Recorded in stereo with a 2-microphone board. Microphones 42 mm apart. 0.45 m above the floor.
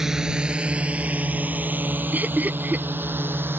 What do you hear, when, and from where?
0.0 s a drone: 10° right (ahead or behind); by 3.6 s 60° right (ahead or behind)
2.1 s laughter: 45° right (ahead or behind)